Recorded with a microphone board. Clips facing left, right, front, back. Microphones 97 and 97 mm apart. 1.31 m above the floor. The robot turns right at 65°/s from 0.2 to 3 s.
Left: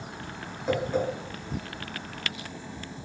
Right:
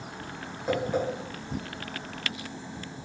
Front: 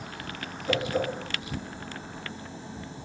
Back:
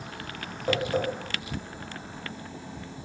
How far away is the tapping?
About 1.6 m.